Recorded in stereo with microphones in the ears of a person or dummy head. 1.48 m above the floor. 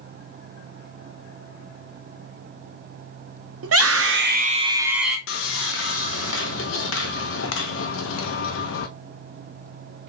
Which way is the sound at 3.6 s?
70° right (ahead or behind).